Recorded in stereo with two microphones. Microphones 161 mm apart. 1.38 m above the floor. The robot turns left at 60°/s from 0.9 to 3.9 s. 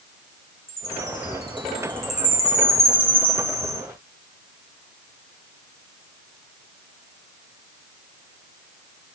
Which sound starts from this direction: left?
A chime, at 0.7 s.